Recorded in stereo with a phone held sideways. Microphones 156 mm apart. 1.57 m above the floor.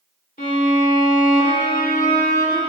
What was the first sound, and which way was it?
A violin, 65° left (ahead or behind).